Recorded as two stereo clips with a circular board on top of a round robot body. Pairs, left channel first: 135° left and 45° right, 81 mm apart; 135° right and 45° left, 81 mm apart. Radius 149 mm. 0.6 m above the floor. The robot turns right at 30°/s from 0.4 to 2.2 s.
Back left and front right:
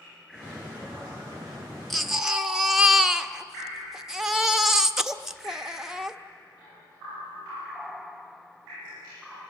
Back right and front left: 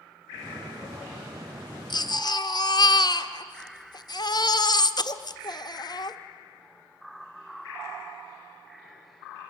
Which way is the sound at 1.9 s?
135° right.